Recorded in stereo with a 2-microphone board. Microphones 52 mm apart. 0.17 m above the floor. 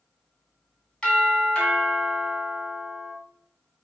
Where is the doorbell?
15° left (ahead or behind), 1.6 m.